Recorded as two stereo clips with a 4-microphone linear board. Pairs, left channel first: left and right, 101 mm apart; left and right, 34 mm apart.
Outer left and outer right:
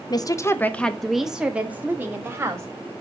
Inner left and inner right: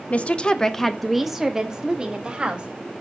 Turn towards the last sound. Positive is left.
turn(degrees=-25)  # may be behind; listen again after turning